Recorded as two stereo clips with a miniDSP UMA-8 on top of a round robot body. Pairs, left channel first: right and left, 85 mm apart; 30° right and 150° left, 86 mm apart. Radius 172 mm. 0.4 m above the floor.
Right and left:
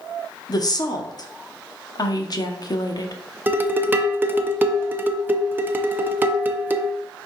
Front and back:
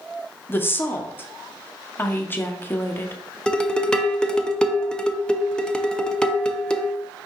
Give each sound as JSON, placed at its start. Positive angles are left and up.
{"t": 0.5, "sound": "a woman speaking", "azimuth_deg": -85, "distance_m": 1.0}
{"t": 3.5, "sound": "dishes clattering", "azimuth_deg": 40, "distance_m": 0.7}